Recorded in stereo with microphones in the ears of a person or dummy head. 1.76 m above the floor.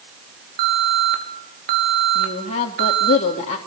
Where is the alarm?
45° right (ahead or behind), 5.5 m.